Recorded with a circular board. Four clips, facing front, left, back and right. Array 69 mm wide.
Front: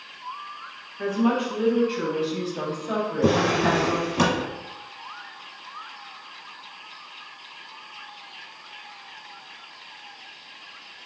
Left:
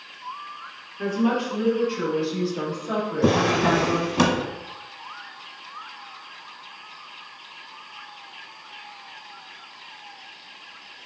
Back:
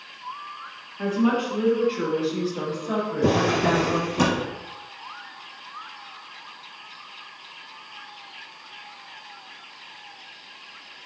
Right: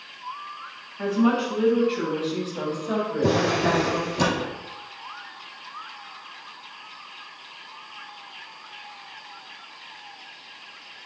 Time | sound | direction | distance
1.0 | a woman speaking | 95° right | 1.6 m
3.2 | a drawer | 65° left | 0.9 m